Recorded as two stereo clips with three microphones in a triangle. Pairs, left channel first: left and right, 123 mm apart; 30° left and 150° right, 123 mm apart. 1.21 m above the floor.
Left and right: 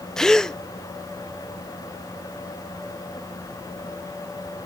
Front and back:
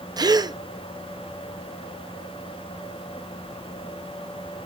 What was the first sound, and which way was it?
A gasp, 175° left.